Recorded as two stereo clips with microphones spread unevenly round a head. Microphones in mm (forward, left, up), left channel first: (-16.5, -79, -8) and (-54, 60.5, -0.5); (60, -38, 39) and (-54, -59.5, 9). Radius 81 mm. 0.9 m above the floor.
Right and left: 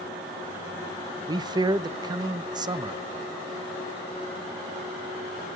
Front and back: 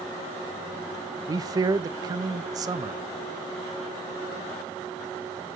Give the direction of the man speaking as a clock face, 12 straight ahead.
7 o'clock.